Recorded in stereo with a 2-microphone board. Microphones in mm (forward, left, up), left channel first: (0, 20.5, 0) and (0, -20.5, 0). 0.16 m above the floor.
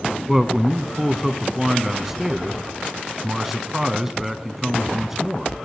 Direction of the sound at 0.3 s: 10° right (ahead or behind).